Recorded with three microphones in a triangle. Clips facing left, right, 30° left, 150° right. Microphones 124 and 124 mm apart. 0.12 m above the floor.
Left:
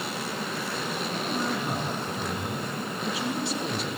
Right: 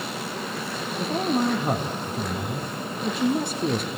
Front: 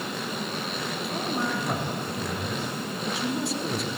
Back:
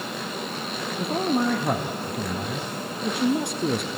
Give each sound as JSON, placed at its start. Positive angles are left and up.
{"t": 1.0, "sound": "a man speaking", "azimuth_deg": -125, "distance_m": 2.5}